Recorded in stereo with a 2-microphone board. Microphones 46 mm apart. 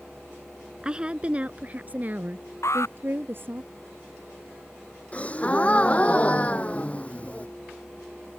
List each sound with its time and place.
0.8 s a woman speaking: 20° right (ahead or behind); by 3.6 s 50° right (ahead or behind)
2.6 s an alarm: 75° left (ahead or behind)
5.1 s a gasp: 30° left (ahead or behind)